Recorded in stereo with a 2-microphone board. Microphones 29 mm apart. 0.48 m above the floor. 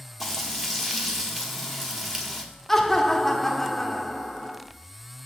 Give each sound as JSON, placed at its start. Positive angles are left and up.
{"t": 0.2, "sound": "frying", "side_deg": -5, "distance_m": 1.4}
{"t": 2.7, "sound": "laughter", "side_deg": 10, "distance_m": 0.9}